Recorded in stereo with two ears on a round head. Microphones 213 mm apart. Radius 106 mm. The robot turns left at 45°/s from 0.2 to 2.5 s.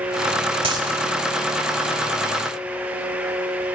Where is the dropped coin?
25° right (ahead or behind), 1.9 m; by 0.9 s 15° right (ahead or behind), 1.9 m.